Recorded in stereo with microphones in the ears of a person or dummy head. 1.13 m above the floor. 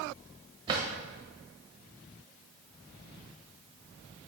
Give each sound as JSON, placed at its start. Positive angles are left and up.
{"t": 0.7, "sound": "a drawer", "side_deg": -30, "distance_m": 1.3}